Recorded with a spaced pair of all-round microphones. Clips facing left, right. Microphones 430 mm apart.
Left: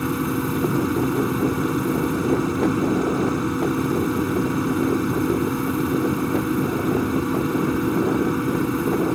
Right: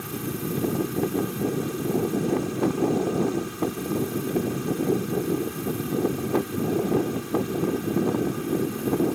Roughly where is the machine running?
Left.